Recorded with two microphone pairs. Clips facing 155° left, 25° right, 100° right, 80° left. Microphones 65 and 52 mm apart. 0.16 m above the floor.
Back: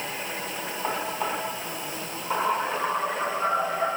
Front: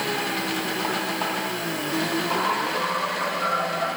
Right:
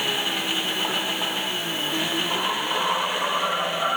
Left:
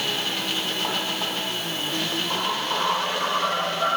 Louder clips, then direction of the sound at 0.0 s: Front 7 dB, right 2 dB; 30° right.